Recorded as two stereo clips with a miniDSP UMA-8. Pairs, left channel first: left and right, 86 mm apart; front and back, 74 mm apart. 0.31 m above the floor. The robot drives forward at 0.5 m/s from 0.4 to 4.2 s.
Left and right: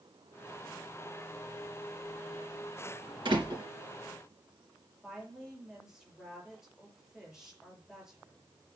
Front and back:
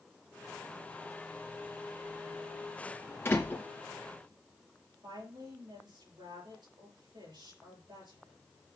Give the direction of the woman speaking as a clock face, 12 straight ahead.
6 o'clock.